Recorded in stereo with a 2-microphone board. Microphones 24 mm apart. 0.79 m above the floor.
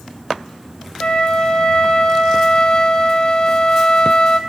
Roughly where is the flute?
Left.